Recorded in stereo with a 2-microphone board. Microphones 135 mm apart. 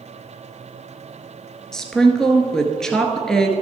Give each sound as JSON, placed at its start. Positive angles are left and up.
{"t": 1.7, "sound": "a woman speaking", "side_deg": 5, "distance_m": 1.2}